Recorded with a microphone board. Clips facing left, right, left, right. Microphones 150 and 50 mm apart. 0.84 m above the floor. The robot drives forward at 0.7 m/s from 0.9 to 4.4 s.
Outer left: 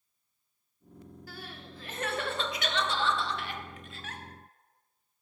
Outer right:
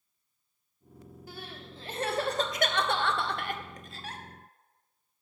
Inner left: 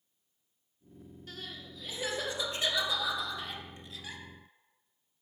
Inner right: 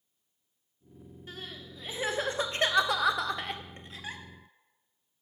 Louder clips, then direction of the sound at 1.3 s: Outer right 2 dB, inner right 2 dB; 25° right (ahead or behind).